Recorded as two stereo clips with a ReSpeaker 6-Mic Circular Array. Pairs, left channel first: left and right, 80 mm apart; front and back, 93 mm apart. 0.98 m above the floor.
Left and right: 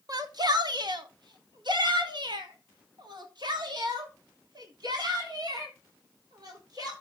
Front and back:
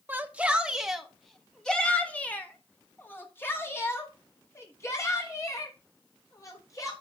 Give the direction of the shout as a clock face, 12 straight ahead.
4 o'clock.